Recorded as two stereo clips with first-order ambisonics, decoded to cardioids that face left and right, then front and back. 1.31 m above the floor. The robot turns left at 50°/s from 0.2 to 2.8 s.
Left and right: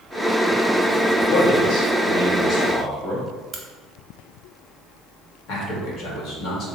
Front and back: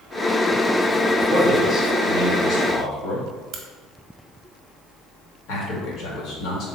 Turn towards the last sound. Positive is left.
turn(degrees=40)